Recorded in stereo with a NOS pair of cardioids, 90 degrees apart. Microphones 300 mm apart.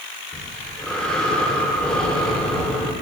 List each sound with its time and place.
0.3 s breathing: 5° left, 3.5 m